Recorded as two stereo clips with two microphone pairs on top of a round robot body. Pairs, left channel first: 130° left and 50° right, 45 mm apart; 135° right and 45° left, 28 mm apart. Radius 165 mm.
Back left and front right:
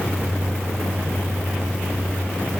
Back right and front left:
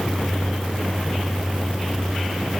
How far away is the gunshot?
No gunshot in this recording.